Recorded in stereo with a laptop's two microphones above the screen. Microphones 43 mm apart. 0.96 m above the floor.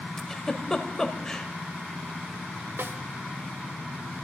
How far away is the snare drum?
About 0.6 m.